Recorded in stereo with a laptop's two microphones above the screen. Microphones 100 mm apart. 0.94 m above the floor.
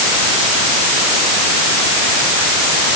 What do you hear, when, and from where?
Only background noise.